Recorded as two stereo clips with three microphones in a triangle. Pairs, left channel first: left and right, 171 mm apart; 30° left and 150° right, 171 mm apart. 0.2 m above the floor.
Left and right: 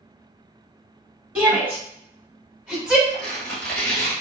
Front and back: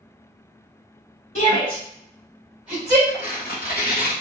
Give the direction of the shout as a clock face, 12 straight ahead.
12 o'clock.